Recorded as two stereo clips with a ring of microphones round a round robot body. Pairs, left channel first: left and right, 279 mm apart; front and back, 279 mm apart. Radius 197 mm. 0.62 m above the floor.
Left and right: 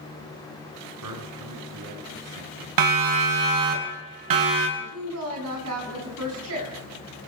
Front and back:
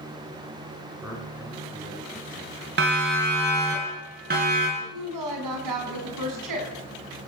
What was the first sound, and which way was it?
A man speaking, 95° right.